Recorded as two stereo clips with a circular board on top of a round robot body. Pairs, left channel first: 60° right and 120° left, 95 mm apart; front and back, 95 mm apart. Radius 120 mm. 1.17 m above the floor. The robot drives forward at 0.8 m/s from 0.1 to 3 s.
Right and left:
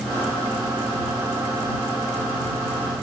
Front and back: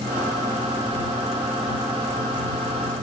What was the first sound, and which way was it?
Only background noise.